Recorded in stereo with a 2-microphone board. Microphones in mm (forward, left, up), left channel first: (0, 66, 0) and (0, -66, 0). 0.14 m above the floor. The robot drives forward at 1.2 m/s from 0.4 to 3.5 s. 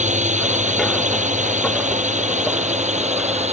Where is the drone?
70° right (ahead or behind); by 3.5 s 60° right (ahead or behind).